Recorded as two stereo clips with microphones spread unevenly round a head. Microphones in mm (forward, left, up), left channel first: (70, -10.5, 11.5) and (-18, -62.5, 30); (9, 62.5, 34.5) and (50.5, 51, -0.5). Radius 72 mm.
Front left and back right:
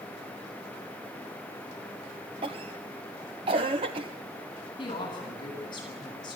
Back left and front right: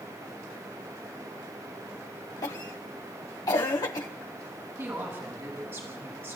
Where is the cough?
170° left, 0.7 m.